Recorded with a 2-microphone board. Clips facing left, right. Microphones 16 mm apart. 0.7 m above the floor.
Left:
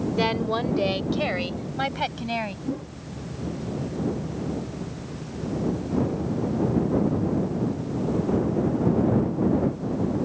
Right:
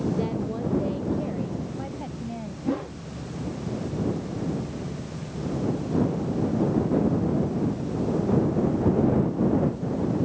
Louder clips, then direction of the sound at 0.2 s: Left 4 dB; 75° left (ahead or behind).